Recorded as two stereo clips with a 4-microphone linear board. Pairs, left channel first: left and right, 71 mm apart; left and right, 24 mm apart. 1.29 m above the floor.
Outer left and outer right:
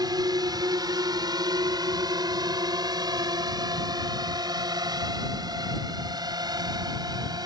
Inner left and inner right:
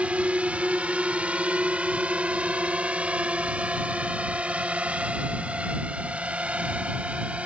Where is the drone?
65° right (ahead or behind); by 7.5 s 70° right (ahead or behind).